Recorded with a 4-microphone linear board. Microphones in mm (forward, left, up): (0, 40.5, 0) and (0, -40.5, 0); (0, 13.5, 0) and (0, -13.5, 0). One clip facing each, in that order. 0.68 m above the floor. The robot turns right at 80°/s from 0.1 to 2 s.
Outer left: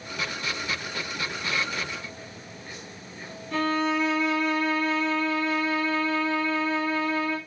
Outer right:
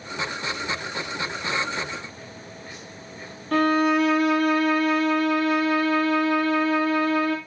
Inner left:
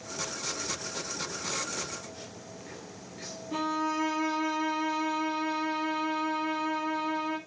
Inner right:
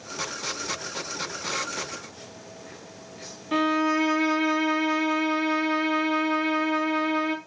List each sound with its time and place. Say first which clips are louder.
3.5 s a violin: outer right 6 dB, inner right 7 dB; 65° right (ahead or behind), 2.5 m